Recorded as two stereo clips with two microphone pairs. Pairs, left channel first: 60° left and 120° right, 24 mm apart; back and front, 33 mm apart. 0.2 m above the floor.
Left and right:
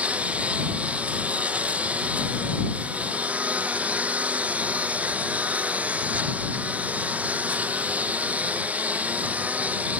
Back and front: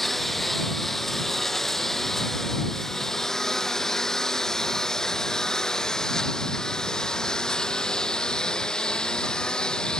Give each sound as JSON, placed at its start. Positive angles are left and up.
{"t": 0.0, "sound": "a lawn mower", "azimuth_deg": -95}